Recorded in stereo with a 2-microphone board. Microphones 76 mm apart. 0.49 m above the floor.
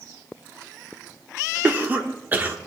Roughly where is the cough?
Right.